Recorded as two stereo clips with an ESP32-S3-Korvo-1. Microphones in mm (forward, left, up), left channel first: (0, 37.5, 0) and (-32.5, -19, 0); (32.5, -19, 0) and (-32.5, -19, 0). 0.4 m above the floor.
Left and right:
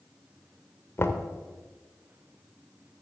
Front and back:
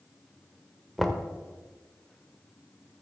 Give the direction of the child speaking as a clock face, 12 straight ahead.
No child speaking in this recording.